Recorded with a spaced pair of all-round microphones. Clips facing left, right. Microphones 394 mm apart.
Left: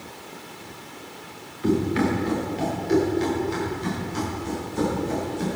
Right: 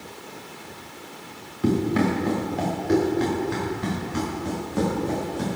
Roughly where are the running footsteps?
Right.